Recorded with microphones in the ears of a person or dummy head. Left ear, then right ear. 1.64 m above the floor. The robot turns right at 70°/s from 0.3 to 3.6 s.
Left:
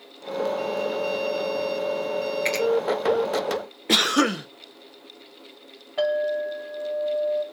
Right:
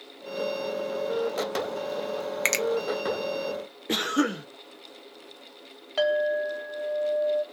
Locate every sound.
2.5 s a finger snap: 55° right (ahead or behind), 0.9 m; by 2.6 s 65° right (ahead or behind), 0.9 m
3.9 s a cough: 25° left (ahead or behind), 0.5 m
6.0 s a clink: 70° right (ahead or behind), 2.0 m